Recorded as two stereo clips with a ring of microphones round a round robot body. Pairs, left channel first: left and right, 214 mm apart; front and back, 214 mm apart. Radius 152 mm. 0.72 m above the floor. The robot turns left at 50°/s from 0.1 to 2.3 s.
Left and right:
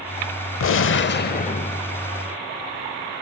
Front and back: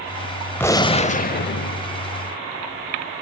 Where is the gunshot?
80° left, 0.8 m; by 1.8 s 20° left, 0.8 m.